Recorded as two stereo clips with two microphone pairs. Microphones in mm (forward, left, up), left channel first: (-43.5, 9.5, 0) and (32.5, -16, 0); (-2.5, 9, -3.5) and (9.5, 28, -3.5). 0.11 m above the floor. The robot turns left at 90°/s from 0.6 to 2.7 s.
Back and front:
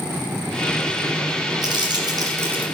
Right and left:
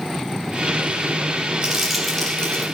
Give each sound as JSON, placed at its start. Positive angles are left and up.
{"t": 1.6, "sound": "crumpling", "azimuth_deg": 5, "distance_m": 3.0}